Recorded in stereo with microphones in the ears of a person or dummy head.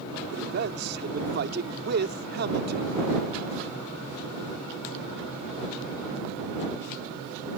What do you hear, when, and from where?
0.3 s a man speaking: 50° right (ahead or behind)